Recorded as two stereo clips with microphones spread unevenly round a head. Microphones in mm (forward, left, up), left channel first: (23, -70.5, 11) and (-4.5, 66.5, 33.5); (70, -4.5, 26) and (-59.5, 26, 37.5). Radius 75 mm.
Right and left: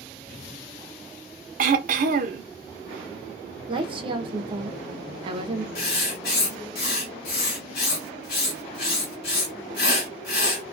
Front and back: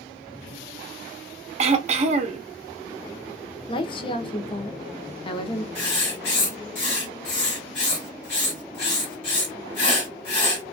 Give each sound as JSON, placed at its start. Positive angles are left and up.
{"t": 1.6, "sound": "throat clearing", "azimuth_deg": 130, "distance_m": 0.6}
{"t": 3.7, "sound": "a woman speaking", "azimuth_deg": 40, "distance_m": 0.6}
{"t": 5.8, "sound": "writing", "azimuth_deg": -60, "distance_m": 1.8}